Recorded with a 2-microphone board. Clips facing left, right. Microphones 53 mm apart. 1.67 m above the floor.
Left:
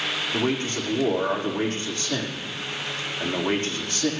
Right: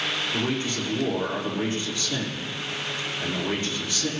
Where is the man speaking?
50° left (ahead or behind), 4.5 m.